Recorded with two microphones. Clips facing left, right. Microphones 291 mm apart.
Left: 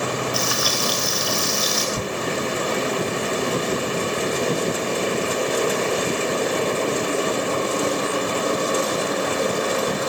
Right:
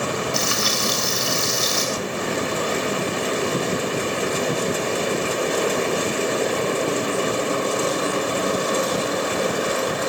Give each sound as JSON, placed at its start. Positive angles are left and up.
{"t": 0.3, "sound": "frying", "side_deg": -25, "distance_m": 5.0}
{"t": 1.9, "sound": "tearing paper", "side_deg": 35, "distance_m": 0.8}